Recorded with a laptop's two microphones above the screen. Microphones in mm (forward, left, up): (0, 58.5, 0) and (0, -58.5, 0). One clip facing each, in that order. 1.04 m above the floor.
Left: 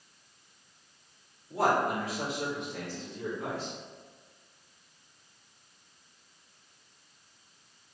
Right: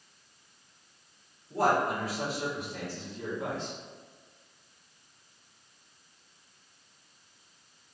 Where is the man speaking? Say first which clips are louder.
Even; 5° left (ahead or behind), 2.0 m; by 3.7 s 25° right (ahead or behind), 1.2 m.